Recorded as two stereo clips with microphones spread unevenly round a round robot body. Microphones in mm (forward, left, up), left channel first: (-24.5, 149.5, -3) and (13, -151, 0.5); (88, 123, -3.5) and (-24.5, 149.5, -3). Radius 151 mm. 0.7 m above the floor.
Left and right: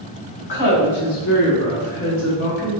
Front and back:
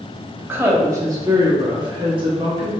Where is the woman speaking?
95° left, 1.6 m; by 2.7 s 150° left, 1.2 m.